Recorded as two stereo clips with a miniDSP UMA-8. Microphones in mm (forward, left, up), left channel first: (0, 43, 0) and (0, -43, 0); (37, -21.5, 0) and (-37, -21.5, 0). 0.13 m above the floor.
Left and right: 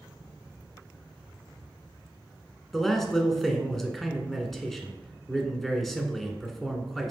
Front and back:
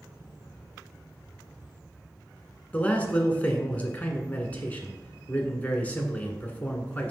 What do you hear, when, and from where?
2.7 s a man speaking: 5° left, 1.0 m